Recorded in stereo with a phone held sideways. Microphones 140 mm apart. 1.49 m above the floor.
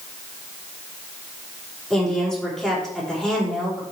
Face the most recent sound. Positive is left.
turn(degrees=5)  # may be behind; listen again after turning